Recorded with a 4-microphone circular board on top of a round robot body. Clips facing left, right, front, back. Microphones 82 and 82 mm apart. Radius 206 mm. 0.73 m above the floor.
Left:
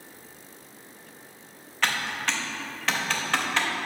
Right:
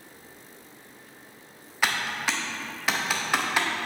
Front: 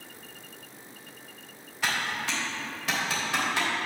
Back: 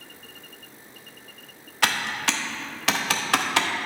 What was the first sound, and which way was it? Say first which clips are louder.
Typing on a keyboard: right 1 dB, back 4 dB; 170° right.